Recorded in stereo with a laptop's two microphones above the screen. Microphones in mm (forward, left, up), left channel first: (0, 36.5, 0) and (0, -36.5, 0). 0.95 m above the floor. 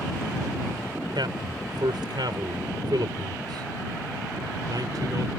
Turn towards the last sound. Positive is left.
turn(degrees=-60)  # may be behind; listen again after turning